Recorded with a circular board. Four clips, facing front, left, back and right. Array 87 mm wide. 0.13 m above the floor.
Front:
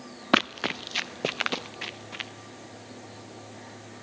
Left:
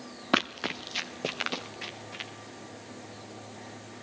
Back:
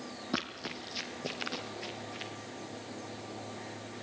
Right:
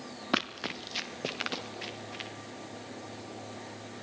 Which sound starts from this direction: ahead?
Running footsteps, at 0.3 s.